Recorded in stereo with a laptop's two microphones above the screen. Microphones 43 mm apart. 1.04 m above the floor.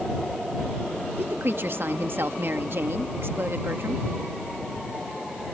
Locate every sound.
1.2 s a woman speaking: 65° right (ahead or behind)